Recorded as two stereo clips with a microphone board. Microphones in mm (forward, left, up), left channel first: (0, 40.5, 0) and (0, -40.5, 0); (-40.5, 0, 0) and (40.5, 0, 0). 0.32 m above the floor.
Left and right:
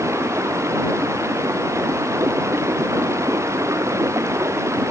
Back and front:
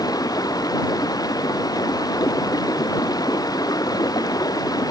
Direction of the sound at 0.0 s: 145° right.